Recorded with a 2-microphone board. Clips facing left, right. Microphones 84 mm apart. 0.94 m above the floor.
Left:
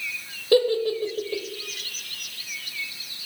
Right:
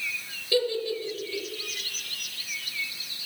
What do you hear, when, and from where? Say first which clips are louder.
0.5 s a giggle: left 7 dB; 50° left (ahead or behind), 0.9 m